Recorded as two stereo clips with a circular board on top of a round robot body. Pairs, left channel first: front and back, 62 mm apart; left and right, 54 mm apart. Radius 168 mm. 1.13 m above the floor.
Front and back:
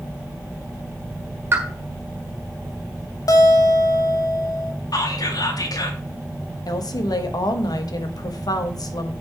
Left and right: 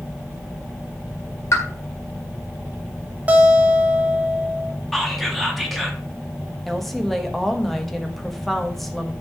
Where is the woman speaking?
5° left, 1.4 m.